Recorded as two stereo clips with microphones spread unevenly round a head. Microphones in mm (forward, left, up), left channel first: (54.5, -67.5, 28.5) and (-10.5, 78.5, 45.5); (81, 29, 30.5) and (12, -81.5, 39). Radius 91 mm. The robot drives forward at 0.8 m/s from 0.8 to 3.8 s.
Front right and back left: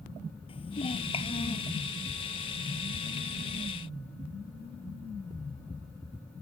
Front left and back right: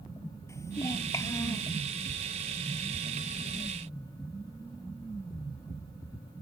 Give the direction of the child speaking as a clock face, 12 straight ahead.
12 o'clock.